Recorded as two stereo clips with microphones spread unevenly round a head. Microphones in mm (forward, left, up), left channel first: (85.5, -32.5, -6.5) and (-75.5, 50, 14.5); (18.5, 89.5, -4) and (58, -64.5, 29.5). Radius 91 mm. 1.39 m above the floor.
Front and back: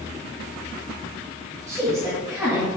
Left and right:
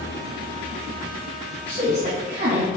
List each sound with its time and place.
1.7 s a woman speaking: 130° right, 3 m